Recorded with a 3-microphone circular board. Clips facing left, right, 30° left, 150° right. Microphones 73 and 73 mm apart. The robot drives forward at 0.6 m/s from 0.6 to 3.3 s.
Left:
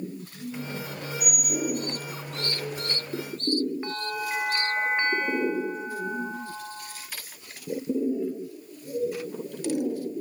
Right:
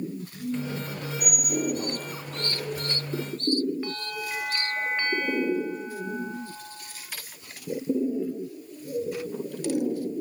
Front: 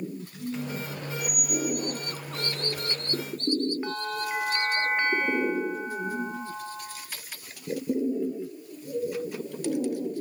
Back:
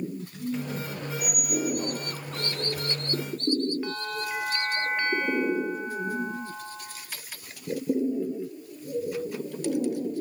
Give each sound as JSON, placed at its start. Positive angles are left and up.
{"t": 1.2, "sound": "a squeak", "azimuth_deg": -135, "distance_m": 7.0}
{"t": 3.8, "sound": "a bell", "azimuth_deg": 75, "distance_m": 1.2}